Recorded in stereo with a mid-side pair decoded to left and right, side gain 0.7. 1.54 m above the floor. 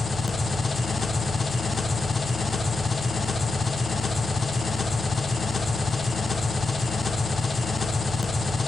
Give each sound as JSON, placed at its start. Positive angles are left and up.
{"t": 0.0, "sound": "an engine running", "azimuth_deg": 20, "distance_m": 0.8}